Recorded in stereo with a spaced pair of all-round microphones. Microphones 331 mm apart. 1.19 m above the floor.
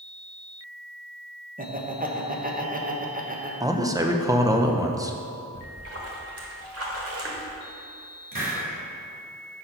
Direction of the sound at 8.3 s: 85° right.